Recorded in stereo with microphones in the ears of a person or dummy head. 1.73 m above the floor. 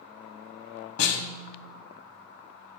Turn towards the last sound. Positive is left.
turn(degrees=85)